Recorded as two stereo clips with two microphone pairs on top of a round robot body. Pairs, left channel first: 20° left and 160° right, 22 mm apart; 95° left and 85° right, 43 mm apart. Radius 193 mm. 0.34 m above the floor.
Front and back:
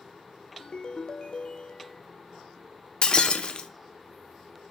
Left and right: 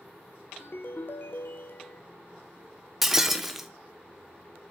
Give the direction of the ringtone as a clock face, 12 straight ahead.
10 o'clock.